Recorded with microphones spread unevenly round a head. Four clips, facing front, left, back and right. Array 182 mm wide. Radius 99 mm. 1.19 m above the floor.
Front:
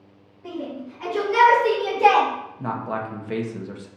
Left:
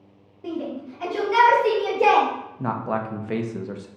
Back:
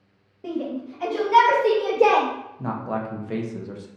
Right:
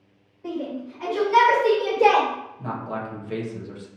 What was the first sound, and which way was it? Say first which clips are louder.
A shout: even, back 3 dB; 155° left.